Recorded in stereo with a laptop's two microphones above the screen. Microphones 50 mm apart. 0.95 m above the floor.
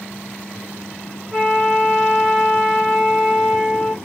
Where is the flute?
25° right (ahead or behind), 4.5 m.